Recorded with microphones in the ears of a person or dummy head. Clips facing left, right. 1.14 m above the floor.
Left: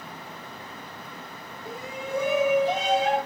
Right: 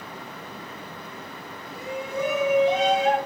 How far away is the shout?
About 4.5 m.